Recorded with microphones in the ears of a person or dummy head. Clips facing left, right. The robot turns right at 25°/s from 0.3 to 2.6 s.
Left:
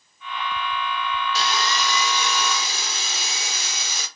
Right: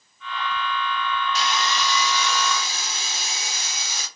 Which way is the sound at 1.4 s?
35° left.